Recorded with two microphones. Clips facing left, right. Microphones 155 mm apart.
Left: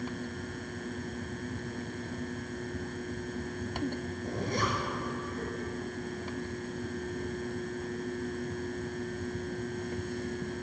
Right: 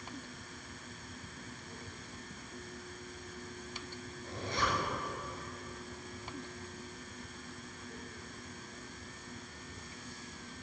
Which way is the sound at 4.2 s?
50° left (ahead or behind).